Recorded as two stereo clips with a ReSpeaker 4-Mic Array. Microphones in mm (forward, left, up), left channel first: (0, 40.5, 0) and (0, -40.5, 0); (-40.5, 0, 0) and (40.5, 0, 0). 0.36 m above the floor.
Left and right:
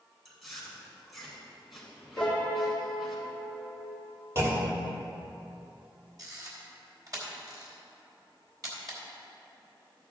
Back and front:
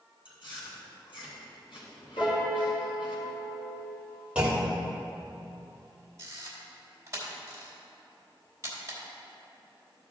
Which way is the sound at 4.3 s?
65° right.